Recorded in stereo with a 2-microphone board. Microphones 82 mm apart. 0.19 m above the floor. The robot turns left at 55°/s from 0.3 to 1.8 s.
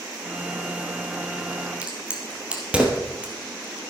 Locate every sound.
1.8 s a crack: 15° right (ahead or behind), 2.5 m